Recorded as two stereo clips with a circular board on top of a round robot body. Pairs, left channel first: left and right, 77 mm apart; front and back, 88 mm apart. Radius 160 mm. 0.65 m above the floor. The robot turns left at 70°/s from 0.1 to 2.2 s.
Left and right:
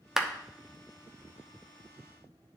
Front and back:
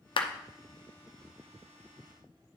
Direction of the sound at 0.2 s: 5° right.